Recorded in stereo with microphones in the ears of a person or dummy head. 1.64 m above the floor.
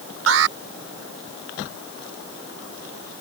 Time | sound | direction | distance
0.3 | an alarm | 85° right | ?